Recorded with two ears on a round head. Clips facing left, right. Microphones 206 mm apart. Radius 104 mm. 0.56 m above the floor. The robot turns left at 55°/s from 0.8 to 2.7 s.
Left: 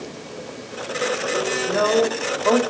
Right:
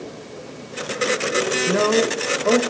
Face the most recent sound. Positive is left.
turn(degrees=-165)